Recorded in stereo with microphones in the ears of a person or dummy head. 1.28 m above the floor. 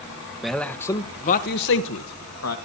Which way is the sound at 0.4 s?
Centre (ahead or behind).